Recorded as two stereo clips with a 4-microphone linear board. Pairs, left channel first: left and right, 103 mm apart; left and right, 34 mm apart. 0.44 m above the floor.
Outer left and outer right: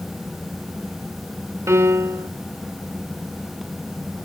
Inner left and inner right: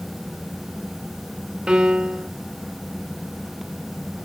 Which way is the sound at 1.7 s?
30° right (ahead or behind).